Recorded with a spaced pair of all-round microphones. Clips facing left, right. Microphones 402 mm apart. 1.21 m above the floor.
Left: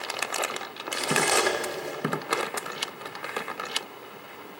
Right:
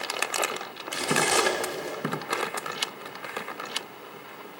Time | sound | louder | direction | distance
0.9 | cutlery clinking | even | 50° right (ahead or behind) | 1.0 m